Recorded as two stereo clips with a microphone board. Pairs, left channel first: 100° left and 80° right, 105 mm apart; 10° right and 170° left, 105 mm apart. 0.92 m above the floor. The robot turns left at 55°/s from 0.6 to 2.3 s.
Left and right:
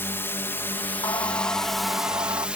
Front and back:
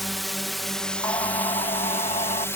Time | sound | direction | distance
0.0 | a drone | 80° left | ?
1.0 | singing | 50° left | ?